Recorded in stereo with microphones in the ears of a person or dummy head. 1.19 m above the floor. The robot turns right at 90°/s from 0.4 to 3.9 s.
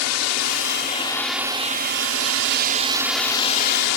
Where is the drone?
75° left (ahead or behind); by 4.0 s 70° left (ahead or behind).